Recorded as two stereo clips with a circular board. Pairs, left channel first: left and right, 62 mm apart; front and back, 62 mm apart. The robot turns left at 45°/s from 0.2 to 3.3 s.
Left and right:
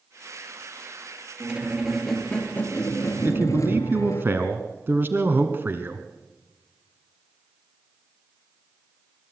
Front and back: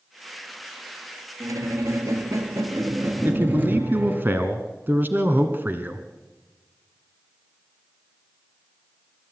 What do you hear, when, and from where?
1.4 s a squeak: 150° right, 1.8 m; by 4.2 s 120° left, 1.8 m
3.2 s a man speaking: 130° right, 1.5 m; by 6.1 s 135° right, 1.5 m